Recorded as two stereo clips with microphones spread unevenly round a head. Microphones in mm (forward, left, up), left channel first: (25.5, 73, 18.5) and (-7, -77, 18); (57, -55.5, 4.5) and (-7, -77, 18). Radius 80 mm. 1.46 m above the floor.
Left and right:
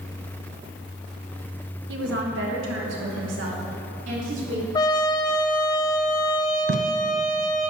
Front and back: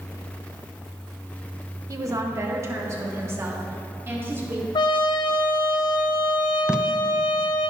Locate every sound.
1.9 s a woman speaking: 125° right, 1.4 m; by 4.7 s 105° right, 3.5 m
4.8 s a trumpet: 15° left, 0.7 m
6.7 s tape being pulled: 80° right, 0.5 m